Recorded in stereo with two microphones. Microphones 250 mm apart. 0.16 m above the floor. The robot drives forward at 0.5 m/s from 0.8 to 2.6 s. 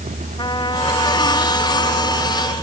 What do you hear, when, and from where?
0.4 s a trumpet: 15° left (ahead or behind)